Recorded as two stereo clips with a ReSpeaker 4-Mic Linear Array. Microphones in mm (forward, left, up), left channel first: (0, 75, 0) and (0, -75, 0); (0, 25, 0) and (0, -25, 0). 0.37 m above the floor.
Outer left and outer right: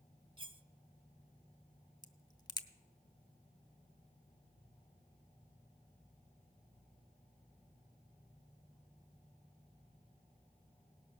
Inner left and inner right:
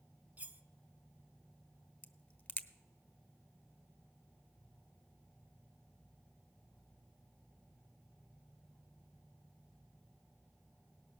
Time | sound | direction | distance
0.4 | cutlery clinking | 35° right (ahead or behind) | 0.5 m
2.0 | a crack | 25° left (ahead or behind) | 0.6 m